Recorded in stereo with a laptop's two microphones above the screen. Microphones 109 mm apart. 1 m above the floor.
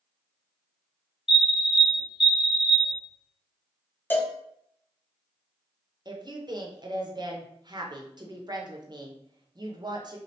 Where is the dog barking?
I don't hear a dog barking.